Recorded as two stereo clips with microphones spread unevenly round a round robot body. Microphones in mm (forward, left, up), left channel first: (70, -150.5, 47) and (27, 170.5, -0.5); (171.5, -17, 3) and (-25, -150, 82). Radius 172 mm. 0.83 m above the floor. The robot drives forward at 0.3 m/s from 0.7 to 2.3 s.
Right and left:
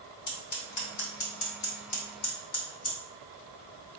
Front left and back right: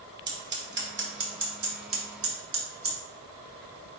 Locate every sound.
0.3 s scissors: 100° right, 1.8 m; by 3.0 s 115° right, 1.9 m